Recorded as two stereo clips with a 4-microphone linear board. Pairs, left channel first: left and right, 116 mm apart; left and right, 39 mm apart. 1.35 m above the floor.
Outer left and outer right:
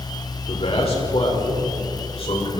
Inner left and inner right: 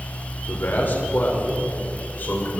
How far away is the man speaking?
About 5.5 m.